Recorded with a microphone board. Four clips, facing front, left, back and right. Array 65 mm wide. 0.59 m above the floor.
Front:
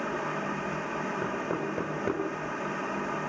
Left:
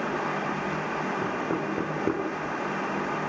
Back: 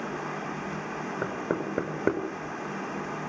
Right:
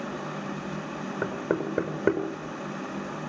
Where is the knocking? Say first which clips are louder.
Even, back 1 dB; 145° right, 7 m.